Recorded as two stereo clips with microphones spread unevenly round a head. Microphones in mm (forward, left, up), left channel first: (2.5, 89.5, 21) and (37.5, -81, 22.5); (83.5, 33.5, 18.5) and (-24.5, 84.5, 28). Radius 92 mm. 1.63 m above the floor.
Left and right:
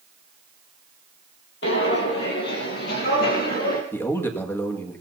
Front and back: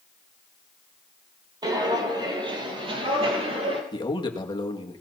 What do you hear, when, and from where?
1.6 s footsteps: 110° left, 3 m; by 3.8 s 135° left, 3 m
3.9 s a man speaking: 25° left, 2 m